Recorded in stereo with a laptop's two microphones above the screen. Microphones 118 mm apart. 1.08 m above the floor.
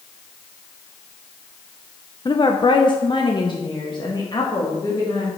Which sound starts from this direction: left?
A woman speaking, at 2.2 s.